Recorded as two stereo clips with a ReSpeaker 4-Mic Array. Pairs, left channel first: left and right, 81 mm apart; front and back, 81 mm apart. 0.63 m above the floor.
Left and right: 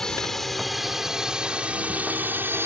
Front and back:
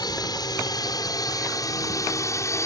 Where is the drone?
10° left; by 2.7 s 40° right.